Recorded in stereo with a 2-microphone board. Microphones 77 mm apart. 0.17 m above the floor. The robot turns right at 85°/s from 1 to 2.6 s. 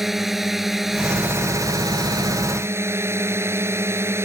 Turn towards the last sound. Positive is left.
turn(degrees=-40)